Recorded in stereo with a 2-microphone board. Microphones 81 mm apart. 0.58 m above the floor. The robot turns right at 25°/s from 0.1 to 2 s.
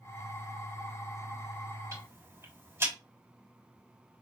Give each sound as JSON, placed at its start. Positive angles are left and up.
{"t": 1.9, "sound": "ticking", "side_deg": -35, "distance_m": 3.0}